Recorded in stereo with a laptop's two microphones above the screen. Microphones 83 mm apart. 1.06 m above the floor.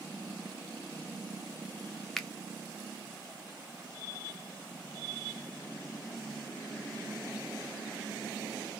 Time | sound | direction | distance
2.2 | a finger snap | 5° left (ahead or behind) | 0.5 m